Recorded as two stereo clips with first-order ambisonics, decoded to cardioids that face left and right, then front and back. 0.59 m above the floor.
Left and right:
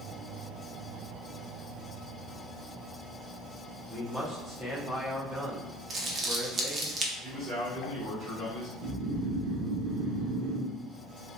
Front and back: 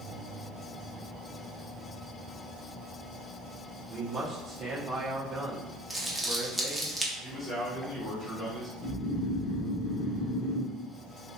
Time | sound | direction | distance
3.9 | a man speaking | 145° right | 0.8 m
5.9 | crumpling | 95° right | 0.7 m
7.2 | a man speaking | 65° right | 1.5 m
8.8 | snoring | 55° right | 0.6 m